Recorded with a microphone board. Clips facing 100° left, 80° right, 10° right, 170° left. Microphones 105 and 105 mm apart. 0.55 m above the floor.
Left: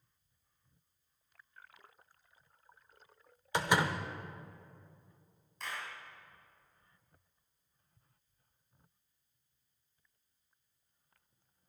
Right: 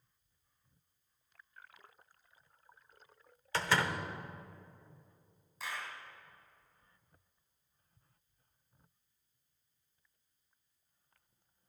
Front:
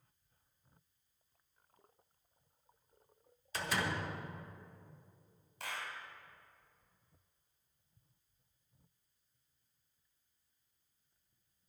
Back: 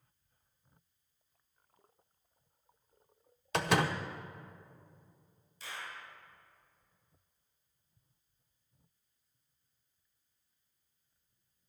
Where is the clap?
5° left, 2.5 m.